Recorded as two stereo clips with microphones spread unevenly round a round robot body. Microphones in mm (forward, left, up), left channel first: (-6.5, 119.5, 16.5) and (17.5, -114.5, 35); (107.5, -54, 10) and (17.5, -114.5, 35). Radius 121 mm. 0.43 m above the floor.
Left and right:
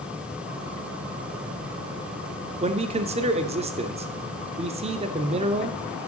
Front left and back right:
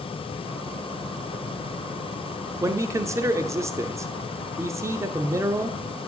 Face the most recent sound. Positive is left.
turn(degrees=-90)